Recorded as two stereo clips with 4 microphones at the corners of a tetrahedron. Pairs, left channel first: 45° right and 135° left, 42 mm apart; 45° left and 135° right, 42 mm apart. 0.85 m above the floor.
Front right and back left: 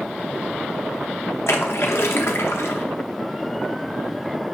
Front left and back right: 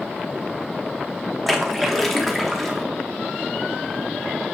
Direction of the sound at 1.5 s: 40° right.